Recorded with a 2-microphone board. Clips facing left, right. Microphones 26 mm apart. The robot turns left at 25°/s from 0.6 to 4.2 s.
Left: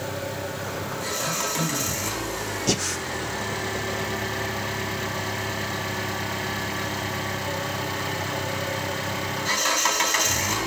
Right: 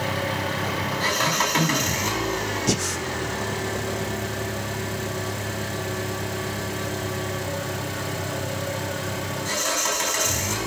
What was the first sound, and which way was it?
An engine running, 110° right.